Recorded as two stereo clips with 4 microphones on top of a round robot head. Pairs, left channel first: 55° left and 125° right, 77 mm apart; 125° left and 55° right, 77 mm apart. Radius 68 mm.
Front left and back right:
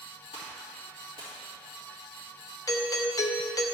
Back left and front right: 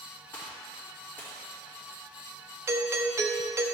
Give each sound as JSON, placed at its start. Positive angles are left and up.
{"t": 0.3, "sound": "a gunshot", "azimuth_deg": 60, "distance_m": 2.0}
{"t": 2.7, "sound": "a doorbell", "azimuth_deg": 5, "distance_m": 0.6}